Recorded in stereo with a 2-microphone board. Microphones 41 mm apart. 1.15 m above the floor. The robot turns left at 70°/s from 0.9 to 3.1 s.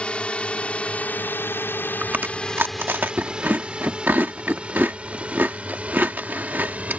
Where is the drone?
25° left (ahead or behind); by 7.0 s 35° right (ahead or behind).